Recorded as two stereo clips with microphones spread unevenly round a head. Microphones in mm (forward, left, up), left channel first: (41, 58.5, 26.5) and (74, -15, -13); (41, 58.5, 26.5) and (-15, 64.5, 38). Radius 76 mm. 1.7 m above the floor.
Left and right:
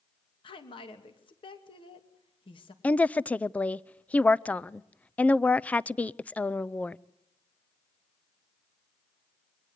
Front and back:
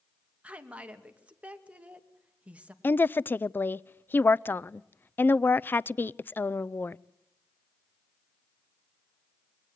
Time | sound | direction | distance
0.4 | a woman speaking | 105° left | 3 m
2.8 | a woman speaking | 50° left | 0.6 m